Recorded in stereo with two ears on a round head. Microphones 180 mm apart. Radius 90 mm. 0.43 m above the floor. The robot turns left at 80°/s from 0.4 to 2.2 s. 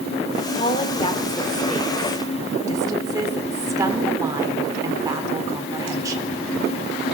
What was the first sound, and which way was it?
A woman speaking, 95° left.